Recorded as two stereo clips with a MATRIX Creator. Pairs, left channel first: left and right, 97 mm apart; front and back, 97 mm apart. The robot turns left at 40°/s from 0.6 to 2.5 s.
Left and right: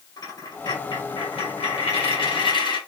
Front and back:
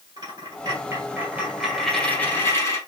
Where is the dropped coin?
135° left, 1.7 m; by 2.8 s 60° left, 1.7 m.